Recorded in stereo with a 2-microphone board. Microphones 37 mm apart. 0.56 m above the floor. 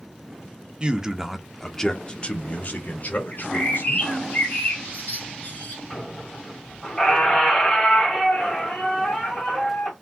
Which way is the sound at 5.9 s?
20° left (ahead or behind).